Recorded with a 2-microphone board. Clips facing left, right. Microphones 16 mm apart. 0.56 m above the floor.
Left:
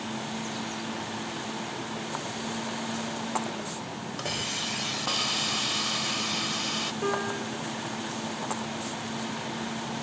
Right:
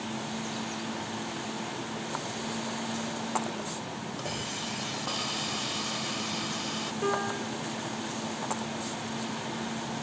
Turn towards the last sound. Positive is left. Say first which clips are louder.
# left 1 dB
turn(degrees=5)  # may be behind; listen again after turning